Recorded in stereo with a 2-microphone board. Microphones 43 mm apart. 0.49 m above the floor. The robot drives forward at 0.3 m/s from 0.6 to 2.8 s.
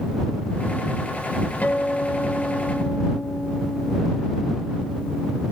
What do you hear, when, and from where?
1.6 s a guitar: 45° left (ahead or behind); by 5.4 s 60° left (ahead or behind)